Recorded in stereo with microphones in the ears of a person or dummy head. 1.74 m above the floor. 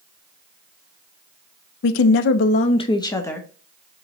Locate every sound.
1.8 s a woman speaking: 70° left (ahead or behind), 0.5 m; by 3.5 s 10° left (ahead or behind), 0.8 m